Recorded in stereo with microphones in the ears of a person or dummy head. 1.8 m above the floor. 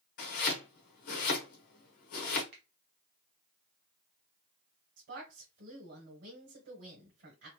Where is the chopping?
50° left (ahead or behind), 1.0 m.